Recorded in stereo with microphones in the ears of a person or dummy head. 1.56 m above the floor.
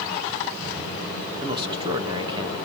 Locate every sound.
1.4 s a man speaking: 25° right (ahead or behind), 2.5 m